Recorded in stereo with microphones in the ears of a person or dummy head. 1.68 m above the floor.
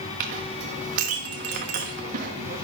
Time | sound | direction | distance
0.2 | a clink | 50° right (ahead or behind) | 1.1 m